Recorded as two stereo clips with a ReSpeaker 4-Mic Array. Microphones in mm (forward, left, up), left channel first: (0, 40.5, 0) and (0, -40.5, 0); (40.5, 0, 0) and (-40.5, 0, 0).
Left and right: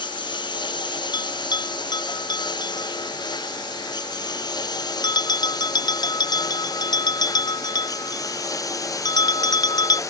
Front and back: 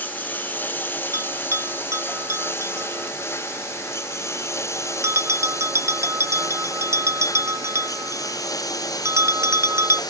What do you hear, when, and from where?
0.0 s a lawn mower: 70° left; by 10.1 s 40° left
1.1 s a bell: 125° left